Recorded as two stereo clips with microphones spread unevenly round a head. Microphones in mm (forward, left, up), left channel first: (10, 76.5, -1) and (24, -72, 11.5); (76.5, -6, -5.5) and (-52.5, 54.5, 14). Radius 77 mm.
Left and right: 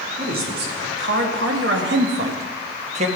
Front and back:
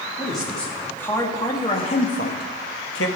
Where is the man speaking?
115° right, 2.5 m; by 3.1 s 40° right, 1.5 m.